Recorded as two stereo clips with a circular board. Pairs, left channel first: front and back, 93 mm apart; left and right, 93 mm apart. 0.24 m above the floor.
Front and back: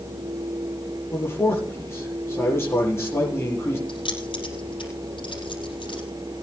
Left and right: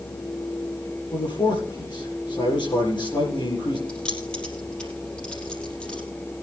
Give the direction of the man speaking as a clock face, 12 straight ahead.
10 o'clock.